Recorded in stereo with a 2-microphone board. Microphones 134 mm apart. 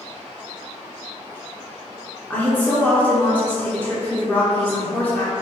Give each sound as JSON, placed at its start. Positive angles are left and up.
{"t": 2.3, "sound": "a woman speaking", "side_deg": 15, "distance_m": 1.3}